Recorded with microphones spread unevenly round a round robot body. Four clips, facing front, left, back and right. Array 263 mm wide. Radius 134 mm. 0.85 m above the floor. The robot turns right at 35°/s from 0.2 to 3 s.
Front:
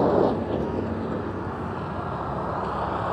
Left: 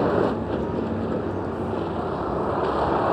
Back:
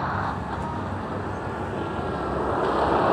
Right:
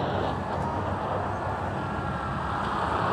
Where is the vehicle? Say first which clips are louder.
Left 7 dB, front 7 dB; 45° left; by 3.1 s 145° left.